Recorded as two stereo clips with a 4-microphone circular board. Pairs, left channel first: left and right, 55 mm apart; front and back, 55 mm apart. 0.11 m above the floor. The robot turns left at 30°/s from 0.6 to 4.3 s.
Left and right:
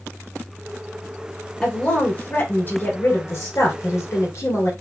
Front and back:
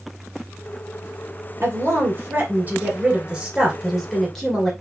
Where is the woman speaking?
165° left, 2.5 m; by 4.7 s 85° left, 2.5 m.